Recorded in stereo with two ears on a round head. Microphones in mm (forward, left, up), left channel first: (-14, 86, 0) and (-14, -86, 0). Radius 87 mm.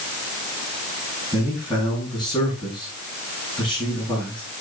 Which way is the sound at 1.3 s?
5° left (ahead or behind).